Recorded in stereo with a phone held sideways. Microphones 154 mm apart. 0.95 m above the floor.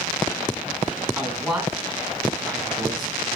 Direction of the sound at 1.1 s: 5° right (ahead or behind).